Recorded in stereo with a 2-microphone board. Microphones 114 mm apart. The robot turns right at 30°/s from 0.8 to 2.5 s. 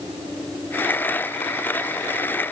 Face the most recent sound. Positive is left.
No sound to turn to.